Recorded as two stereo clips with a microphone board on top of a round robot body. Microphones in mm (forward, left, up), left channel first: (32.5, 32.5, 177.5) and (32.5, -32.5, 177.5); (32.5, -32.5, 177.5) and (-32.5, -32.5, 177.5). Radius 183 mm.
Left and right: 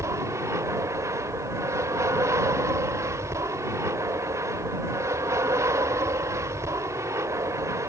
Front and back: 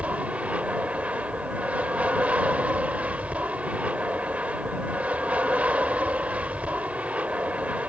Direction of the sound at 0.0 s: 115° right.